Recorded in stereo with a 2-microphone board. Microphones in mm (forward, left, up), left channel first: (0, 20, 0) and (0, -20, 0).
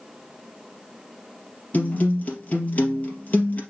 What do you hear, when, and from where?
1.7 s a guitar: 40° left (ahead or behind), 3 m